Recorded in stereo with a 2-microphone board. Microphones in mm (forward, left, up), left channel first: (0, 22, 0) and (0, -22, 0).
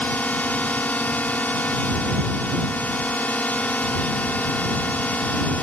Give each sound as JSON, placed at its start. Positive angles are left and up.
{"t": 0.0, "sound": "a drone", "side_deg": 35}